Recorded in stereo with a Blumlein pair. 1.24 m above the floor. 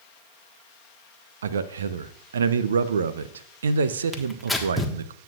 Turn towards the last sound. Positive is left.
turn(degrees=0)